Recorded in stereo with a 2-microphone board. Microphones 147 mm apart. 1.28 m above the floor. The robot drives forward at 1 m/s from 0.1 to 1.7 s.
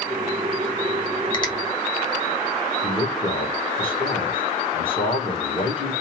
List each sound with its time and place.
1.3 s a finger snap: 35° left (ahead or behind), 1.2 m; by 1.5 s 30° left (ahead or behind), 1.3 m
2.8 s a man speaking: 35° left (ahead or behind), 1.5 m